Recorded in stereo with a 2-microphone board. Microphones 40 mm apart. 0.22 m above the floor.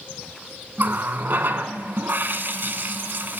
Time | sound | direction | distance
0.8 | a running tap | 60° right (ahead or behind) | 1.2 m